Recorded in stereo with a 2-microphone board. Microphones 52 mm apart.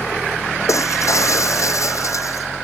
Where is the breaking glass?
75° left (ahead or behind).